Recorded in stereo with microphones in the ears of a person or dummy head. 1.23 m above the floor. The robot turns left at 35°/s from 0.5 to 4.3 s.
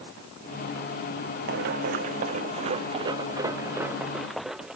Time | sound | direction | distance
1.5 | running footsteps | 60° right (ahead or behind) | ?